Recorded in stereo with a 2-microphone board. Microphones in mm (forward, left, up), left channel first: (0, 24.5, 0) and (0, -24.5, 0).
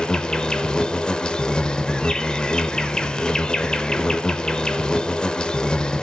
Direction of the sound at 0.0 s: 20° left (ahead or behind).